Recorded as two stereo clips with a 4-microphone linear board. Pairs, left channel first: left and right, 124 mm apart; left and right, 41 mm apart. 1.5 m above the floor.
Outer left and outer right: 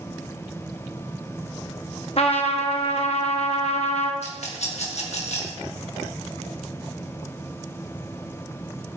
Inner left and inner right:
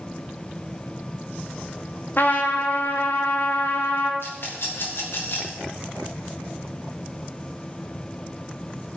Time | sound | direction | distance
2.2 | a trumpet | 55° left (ahead or behind) | 1.5 m
4.2 | a rattle | 60° left (ahead or behind) | 2.5 m